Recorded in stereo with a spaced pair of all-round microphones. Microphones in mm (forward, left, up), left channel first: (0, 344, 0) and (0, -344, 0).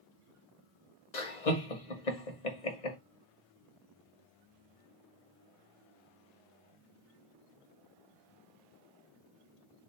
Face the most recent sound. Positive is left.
turn(degrees=85)